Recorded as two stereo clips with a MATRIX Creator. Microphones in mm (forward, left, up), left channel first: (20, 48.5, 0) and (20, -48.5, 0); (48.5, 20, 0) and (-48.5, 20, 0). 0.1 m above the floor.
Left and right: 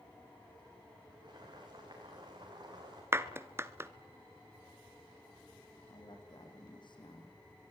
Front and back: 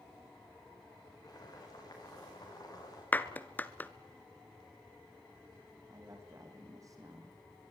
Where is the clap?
55° right, 1.0 m.